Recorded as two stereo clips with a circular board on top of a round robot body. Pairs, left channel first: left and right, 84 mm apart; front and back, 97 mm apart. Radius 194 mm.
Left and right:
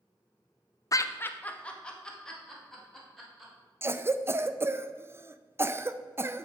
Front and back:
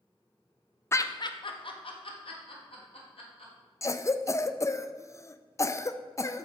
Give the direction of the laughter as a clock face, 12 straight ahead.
10 o'clock.